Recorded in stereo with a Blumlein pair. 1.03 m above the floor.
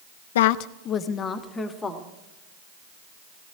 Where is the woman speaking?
60° left, 0.5 m; by 2.1 s 10° left, 1.8 m.